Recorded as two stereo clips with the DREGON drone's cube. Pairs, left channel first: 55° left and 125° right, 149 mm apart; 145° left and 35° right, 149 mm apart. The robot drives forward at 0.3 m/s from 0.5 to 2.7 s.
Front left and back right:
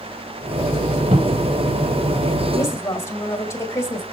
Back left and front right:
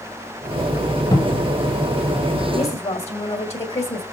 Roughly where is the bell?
I don't hear a bell.